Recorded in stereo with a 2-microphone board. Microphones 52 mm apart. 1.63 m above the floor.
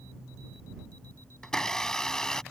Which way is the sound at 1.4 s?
10° left (ahead or behind).